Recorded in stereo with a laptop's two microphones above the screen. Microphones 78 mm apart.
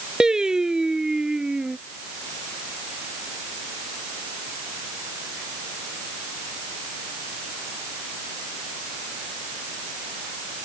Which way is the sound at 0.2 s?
10° right (ahead or behind).